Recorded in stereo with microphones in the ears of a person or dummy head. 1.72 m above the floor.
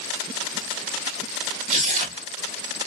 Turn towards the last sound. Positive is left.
turn(degrees=-45)  # may be behind; listen again after turning